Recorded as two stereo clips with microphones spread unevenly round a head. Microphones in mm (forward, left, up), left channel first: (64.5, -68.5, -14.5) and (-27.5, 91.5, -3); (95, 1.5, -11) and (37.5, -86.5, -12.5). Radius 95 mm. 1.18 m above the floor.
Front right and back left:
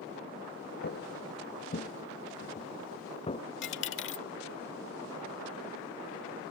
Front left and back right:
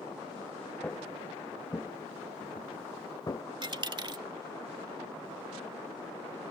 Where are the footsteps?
20° right; by 3.4 s 5° left.